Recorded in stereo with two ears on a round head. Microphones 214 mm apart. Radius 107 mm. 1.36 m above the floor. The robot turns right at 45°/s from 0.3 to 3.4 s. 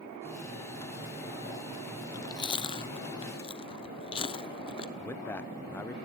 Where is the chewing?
15° left (ahead or behind), 0.9 m; by 4.9 s 25° left (ahead or behind), 0.9 m.